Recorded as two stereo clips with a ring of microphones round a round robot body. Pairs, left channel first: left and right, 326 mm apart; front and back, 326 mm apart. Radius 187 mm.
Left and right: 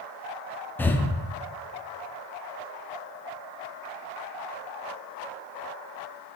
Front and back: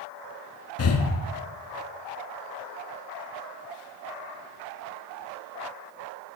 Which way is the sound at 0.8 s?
10° left.